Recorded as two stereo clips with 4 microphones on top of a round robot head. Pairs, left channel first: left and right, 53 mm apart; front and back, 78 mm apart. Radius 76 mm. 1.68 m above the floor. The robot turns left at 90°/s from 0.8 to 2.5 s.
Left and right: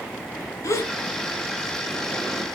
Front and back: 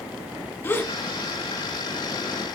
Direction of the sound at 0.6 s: 65° left.